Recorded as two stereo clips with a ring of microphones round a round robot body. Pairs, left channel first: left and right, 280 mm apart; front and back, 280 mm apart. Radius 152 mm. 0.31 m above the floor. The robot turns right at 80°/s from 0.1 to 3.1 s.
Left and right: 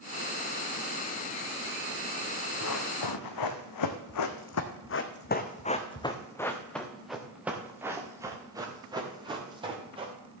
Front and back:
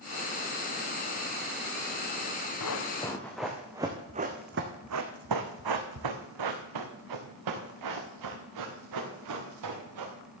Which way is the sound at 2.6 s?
35° left.